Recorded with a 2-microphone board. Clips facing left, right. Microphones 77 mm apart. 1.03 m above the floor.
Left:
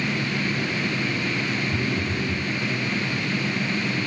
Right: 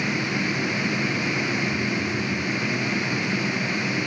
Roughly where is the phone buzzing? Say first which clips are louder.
Even; left.